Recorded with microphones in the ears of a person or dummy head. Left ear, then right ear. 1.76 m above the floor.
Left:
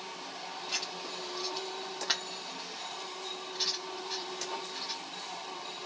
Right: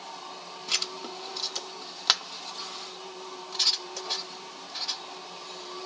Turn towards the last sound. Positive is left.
turn(degrees=-45)  # may be behind; listen again after turning